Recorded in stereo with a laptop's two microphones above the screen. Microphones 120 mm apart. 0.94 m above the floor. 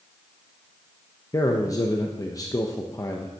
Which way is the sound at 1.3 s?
30° left (ahead or behind).